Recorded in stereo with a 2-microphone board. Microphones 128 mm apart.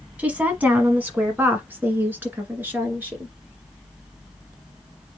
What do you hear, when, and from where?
0.2 s a woman speaking: 10° right (ahead or behind), 1.3 m; by 3.3 s 15° right (ahead or behind), 2.5 m